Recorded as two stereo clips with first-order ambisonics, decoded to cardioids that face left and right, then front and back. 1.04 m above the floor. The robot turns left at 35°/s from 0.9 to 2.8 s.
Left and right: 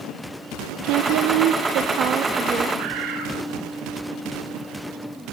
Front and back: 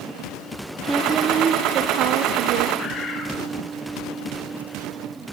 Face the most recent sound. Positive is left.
turn(degrees=-60)